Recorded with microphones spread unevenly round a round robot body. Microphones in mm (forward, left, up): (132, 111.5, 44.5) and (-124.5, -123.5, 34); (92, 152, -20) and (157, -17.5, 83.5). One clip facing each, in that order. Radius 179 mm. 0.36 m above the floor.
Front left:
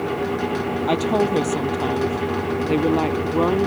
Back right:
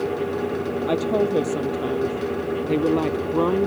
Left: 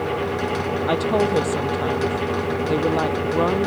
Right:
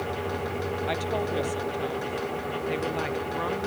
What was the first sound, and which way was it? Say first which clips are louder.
A woman speaking: front left 1 dB, left 12 dB; 115° left.